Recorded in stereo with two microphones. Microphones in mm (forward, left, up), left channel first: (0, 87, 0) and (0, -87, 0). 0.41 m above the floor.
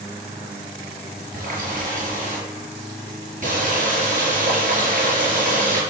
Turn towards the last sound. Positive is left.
turn(degrees=-45)  # may be behind; listen again after turning